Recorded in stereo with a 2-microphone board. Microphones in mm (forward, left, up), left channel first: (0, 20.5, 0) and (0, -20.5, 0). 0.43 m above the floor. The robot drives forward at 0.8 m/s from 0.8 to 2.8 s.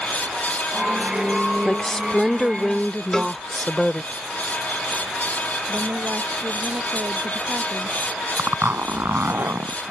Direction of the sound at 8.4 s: 70° right (ahead or behind).